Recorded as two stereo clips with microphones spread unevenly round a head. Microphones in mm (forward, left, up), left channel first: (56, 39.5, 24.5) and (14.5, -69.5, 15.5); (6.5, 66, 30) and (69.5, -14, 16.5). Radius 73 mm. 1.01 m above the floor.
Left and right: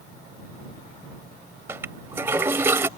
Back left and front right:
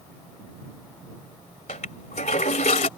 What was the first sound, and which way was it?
A toilet flushing, 170° left.